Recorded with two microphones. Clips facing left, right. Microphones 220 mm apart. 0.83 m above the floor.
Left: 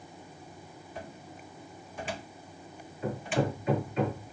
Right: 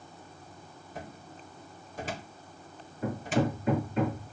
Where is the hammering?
45° right (ahead or behind), 7 m.